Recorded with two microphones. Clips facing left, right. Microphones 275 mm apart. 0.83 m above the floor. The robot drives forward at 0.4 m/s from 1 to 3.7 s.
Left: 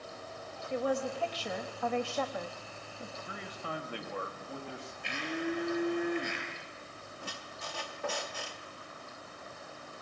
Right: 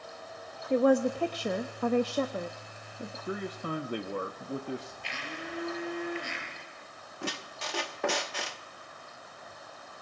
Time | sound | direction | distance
0.7 | a woman speaking | 60° right (ahead or behind) | 0.7 m
3.3 | a man speaking | 50° right (ahead or behind) | 0.9 m
5.0 | a blender | 60° left (ahead or behind) | 6.5 m
7.2 | a squeak | 85° right | 0.7 m